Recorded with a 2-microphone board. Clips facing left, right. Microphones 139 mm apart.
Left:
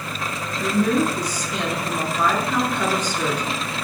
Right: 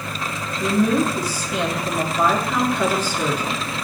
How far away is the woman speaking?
About 1.6 m.